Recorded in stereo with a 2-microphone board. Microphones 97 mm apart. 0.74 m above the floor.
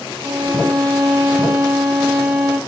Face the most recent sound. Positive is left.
turn(degrees=-45)  # may be behind; listen again after turning